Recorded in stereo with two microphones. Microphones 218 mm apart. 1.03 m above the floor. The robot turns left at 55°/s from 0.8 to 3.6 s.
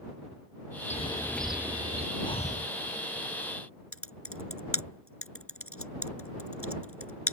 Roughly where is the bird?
Ahead left.